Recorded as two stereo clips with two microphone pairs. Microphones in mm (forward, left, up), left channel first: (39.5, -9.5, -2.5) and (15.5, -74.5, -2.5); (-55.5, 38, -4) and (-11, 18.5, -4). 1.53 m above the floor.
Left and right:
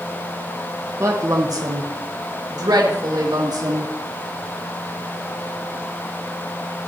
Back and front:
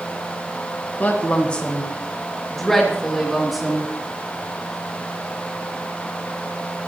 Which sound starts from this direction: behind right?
A woman speaking, at 1.0 s.